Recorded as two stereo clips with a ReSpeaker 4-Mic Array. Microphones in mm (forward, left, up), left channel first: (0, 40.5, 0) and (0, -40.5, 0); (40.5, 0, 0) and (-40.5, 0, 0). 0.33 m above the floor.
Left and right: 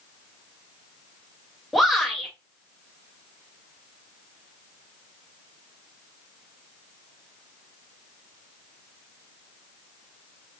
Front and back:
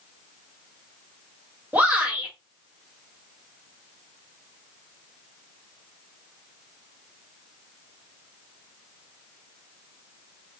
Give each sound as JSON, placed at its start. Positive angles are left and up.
{"t": 1.7, "sound": "a shout", "azimuth_deg": 180, "distance_m": 1.5}